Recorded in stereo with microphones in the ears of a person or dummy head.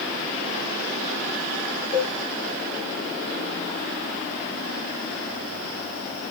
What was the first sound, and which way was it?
A cowbell, 50° left (ahead or behind).